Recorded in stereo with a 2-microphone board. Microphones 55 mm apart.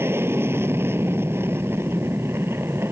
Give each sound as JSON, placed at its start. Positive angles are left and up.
{"t": 0.0, "sound": "an aircraft", "side_deg": -50}